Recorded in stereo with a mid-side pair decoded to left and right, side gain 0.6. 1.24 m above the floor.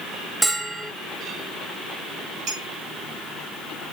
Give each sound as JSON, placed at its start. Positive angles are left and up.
{"t": 0.4, "sound": "a bell", "azimuth_deg": -15, "distance_m": 1.7}
{"t": 2.5, "sound": "a clink", "azimuth_deg": -65, "distance_m": 2.0}